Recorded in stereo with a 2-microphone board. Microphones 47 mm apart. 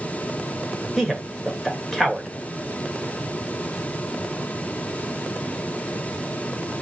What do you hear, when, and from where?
1.0 s a man speaking: centre (ahead or behind), 1.0 m